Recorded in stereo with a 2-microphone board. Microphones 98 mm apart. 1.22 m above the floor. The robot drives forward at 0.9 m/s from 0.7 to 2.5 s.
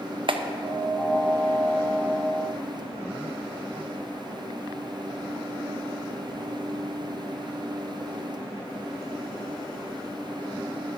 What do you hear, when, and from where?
0.3 s a clap: 55° right (ahead or behind), 0.7 m